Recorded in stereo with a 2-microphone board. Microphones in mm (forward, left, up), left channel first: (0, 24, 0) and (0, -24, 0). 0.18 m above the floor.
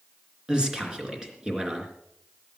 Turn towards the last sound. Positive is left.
turn(degrees=-15)  # may be behind; listen again after turning